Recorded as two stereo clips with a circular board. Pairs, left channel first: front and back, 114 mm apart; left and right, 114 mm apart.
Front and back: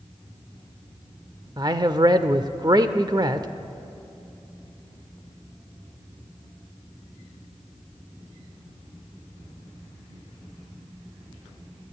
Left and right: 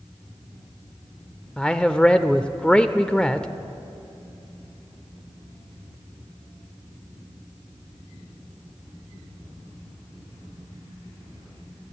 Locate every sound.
1.6 s a man speaking: 165° left, 1.0 m